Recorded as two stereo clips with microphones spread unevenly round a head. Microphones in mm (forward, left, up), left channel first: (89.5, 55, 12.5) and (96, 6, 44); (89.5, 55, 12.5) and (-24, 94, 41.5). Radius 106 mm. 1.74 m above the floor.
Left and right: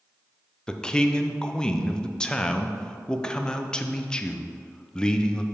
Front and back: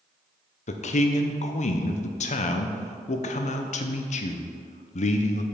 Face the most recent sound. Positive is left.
turn(degrees=-10)